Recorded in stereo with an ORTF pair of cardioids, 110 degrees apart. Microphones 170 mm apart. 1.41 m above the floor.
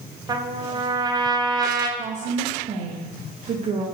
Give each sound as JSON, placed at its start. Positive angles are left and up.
{"t": 0.3, "sound": "a trumpet", "azimuth_deg": -25, "distance_m": 0.5}
{"t": 2.0, "sound": "a woman speaking", "azimuth_deg": -45, "distance_m": 0.8}